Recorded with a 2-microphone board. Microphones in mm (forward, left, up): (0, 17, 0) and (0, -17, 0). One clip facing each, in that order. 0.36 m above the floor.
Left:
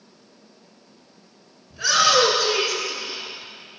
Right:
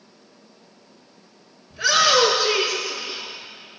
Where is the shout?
5° right (ahead or behind), 4.5 m; by 3.3 s centre (ahead or behind), 5 m.